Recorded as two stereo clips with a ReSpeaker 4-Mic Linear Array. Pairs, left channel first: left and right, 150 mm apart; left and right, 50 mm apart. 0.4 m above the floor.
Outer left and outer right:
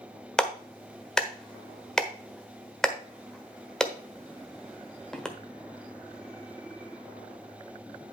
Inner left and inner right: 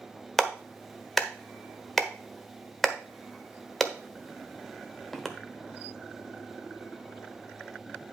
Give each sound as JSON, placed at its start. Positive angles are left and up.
{"t": 0.4, "sound": "a clap", "side_deg": 5, "distance_m": 1.2}